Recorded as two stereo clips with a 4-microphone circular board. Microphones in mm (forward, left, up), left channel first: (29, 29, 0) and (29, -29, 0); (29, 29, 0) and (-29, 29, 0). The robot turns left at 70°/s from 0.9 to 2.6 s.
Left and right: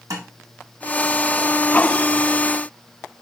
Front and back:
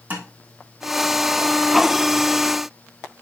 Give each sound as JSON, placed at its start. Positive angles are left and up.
{"t": 0.1, "sound": "tapping", "azimuth_deg": -120, "distance_m": 3.5}